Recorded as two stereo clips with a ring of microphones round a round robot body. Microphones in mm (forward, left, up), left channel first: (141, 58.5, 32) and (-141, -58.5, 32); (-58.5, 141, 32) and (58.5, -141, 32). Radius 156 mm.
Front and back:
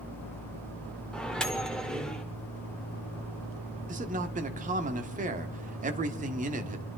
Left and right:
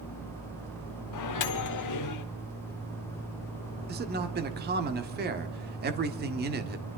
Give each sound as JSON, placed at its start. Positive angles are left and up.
{"t": 1.1, "sound": "a microwave", "azimuth_deg": 110, "distance_m": 1.2}
{"t": 3.9, "sound": "a man speaking", "azimuth_deg": -105, "distance_m": 1.4}